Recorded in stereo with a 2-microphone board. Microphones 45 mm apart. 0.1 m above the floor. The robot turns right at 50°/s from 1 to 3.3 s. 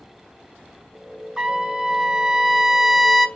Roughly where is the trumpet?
Centre.